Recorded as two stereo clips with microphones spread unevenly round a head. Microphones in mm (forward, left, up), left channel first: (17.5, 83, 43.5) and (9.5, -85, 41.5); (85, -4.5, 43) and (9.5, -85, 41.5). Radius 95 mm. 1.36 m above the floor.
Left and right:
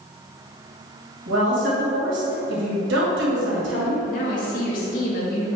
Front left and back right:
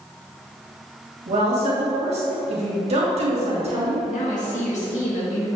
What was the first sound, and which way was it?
A woman speaking, 110° right.